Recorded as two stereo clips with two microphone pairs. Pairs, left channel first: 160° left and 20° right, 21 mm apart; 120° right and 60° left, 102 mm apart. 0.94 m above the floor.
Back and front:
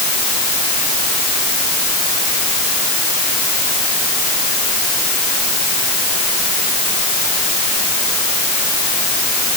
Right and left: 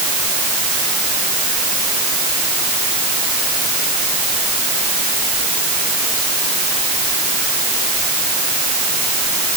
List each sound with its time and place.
Only background noise.